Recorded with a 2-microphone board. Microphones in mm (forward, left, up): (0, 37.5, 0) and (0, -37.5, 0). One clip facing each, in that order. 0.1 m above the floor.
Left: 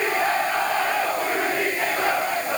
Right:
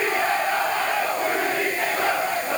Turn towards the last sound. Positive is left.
No sound to turn to.